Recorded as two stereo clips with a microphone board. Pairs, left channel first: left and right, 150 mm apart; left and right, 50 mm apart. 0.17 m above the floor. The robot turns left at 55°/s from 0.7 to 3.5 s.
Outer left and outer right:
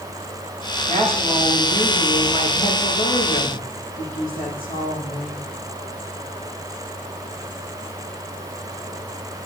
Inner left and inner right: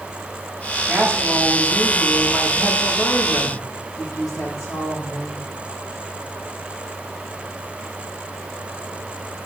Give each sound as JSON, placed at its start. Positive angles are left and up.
{"t": 0.9, "sound": "a woman speaking", "azimuth_deg": -130, "distance_m": 9.0}